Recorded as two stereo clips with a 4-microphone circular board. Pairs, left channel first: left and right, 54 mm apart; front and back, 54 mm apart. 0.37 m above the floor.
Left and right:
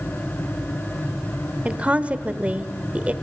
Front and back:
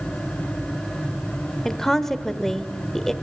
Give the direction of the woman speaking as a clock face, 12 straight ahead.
3 o'clock.